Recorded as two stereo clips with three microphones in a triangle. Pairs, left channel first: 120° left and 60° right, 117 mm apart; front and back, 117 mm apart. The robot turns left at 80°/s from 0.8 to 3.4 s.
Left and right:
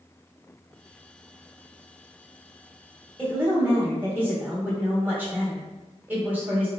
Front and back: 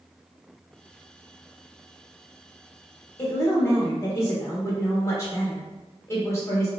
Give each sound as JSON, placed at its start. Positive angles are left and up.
{"t": 3.2, "sound": "a woman speaking", "azimuth_deg": 10, "distance_m": 1.3}